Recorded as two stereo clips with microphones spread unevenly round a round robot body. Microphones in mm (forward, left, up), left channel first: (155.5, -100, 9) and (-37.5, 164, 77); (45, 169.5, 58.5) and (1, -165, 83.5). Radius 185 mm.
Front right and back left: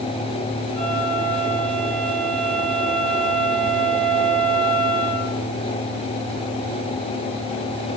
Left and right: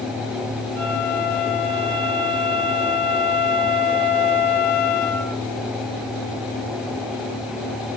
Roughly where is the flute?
Behind left.